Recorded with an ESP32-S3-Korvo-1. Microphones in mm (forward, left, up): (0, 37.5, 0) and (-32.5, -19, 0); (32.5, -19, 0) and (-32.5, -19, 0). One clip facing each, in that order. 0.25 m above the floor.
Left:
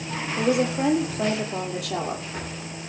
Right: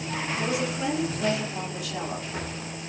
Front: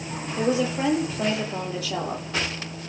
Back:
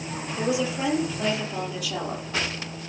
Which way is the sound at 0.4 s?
50° left.